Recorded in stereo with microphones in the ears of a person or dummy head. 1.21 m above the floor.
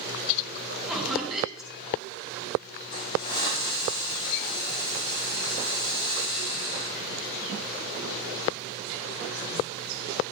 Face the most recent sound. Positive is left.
turn(degrees=60)  # may be behind; listen again after turning